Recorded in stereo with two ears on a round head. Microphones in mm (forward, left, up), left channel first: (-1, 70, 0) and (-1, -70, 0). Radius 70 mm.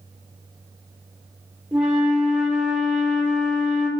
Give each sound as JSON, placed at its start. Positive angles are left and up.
{"t": 1.7, "sound": "a flute", "side_deg": -5, "distance_m": 1.6}